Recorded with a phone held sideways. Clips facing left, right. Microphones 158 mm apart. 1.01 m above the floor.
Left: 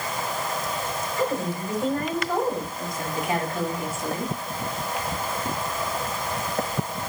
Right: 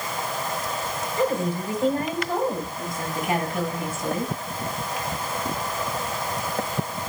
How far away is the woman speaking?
About 6 m.